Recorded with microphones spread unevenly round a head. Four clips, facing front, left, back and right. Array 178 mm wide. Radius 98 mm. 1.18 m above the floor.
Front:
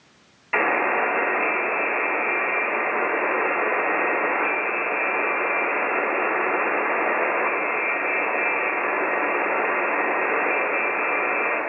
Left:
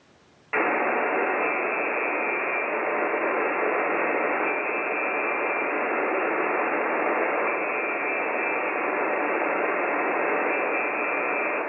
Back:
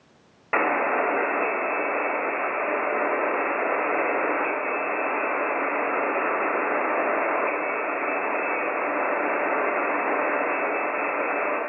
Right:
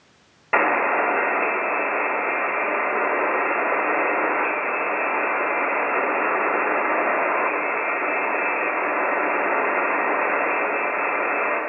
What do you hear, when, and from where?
0.5 s a buzzer: 115° right, 3 m